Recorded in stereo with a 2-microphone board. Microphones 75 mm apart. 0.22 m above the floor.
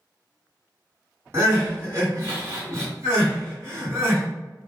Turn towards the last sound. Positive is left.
turn(degrees=-40)  # may be behind; listen again after turning